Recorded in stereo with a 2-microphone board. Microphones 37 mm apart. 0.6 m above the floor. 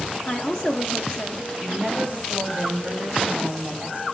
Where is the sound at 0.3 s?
25° left (ahead or behind), 1.0 m.